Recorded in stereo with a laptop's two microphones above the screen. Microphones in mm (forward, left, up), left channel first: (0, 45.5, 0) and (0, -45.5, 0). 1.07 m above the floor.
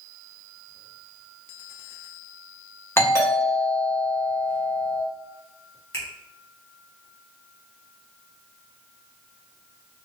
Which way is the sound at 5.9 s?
30° left (ahead or behind).